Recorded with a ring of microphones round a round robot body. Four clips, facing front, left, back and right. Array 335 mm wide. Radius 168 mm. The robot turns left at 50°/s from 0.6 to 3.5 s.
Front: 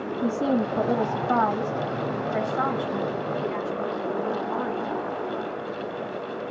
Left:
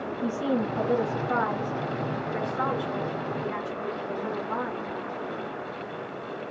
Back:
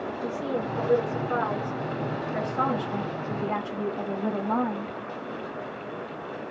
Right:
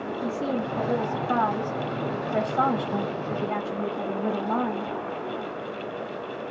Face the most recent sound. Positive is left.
turn(degrees=-125)